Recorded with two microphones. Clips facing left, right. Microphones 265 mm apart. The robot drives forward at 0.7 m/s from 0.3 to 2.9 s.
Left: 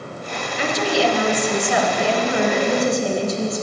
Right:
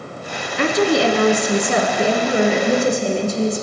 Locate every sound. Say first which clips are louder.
0.6 s a woman speaking: right 4 dB; 65° right (ahead or behind), 1.5 m; by 3.6 s 30° right (ahead or behind), 2.5 m